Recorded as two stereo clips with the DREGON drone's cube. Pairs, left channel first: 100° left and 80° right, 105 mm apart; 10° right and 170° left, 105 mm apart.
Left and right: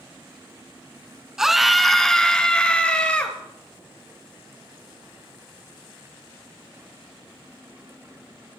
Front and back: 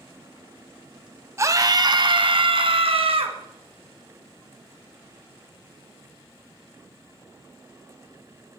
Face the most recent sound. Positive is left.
turn(degrees=175)